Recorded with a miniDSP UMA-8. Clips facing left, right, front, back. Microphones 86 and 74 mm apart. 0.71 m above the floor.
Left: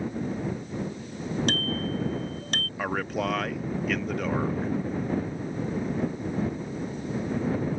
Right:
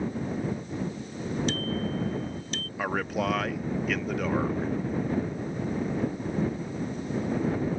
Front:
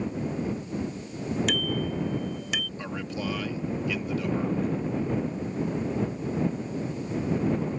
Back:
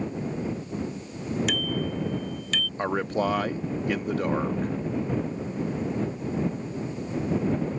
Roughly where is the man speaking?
Behind.